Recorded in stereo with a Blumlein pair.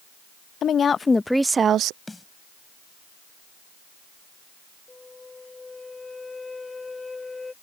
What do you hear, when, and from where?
0.6 s a woman speaking: 25° left; by 2.0 s 45° right
2.1 s a snare drum: 5° left
4.9 s a flute: 10° left